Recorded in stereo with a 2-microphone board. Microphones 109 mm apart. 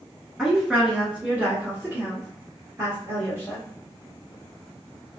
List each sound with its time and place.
0.4 s a woman speaking: 5° right (ahead or behind), 1.4 m; by 3.6 s 25° right (ahead or behind), 2 m